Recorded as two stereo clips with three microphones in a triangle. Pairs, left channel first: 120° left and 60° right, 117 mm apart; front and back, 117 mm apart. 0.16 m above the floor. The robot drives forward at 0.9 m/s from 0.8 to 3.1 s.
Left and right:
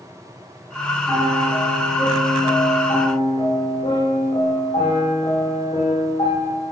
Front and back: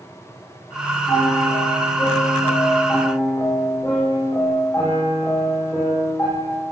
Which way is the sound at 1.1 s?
60° left.